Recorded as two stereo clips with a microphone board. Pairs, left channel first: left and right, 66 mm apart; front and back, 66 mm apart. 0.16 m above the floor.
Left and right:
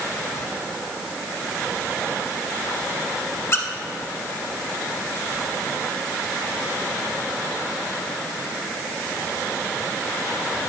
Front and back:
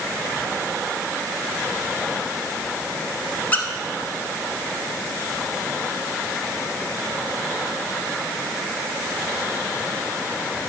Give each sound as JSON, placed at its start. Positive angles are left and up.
{"t": 3.5, "sound": "a squeak", "azimuth_deg": 55, "distance_m": 1.1}